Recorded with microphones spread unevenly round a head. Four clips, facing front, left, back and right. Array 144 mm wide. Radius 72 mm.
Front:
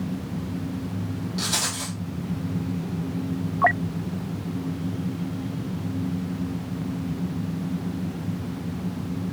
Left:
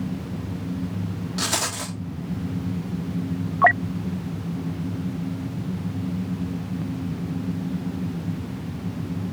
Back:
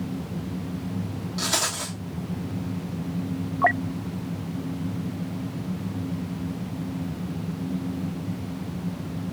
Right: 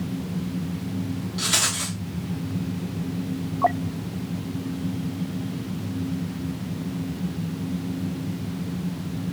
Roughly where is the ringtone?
I don't hear a ringtone.